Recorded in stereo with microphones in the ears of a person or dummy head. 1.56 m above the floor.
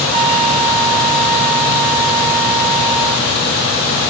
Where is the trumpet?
35° right (ahead or behind), 0.7 m.